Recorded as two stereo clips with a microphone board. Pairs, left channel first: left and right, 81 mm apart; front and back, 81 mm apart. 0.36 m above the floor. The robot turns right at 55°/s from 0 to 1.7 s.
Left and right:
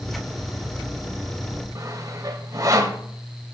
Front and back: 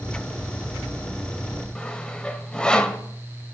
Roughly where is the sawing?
Right.